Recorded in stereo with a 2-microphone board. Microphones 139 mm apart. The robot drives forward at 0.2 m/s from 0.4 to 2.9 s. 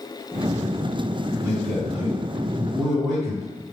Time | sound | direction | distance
1.4 | a man speaking | 5° left (ahead or behind) | 2.0 m